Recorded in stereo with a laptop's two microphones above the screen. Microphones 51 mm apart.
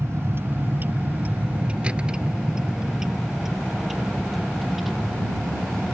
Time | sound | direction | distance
0.0 | a vehicle | 60° right (ahead or behind) | ?